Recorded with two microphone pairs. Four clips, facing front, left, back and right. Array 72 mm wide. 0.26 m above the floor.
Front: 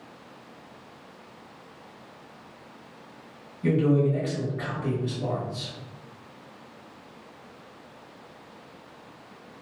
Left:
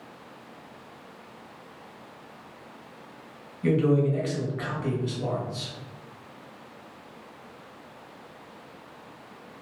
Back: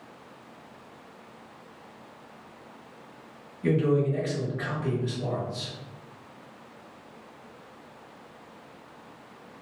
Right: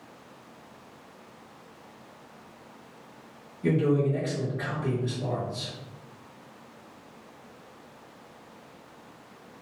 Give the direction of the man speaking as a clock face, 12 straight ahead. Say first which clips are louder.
Left 2 dB, front 2 dB; 9 o'clock.